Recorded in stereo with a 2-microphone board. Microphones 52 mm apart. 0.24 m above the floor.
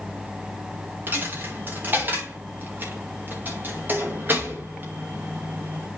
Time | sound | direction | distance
1.1 | a dropped coin | 40° right (ahead or behind) | 2.5 m